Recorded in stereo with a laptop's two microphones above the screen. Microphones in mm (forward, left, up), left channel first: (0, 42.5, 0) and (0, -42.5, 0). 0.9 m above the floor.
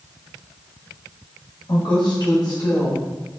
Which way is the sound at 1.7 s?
60° left (ahead or behind).